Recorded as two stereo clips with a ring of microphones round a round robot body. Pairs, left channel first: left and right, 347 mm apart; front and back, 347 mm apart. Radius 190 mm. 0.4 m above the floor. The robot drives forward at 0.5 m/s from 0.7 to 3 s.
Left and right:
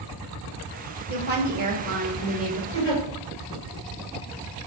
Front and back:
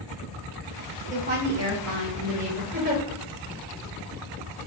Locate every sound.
1.1 s a woman speaking: 125° right, 1.0 m; by 2.6 s 160° right, 1.5 m
2.7 s a giggle: 120° left, 2.5 m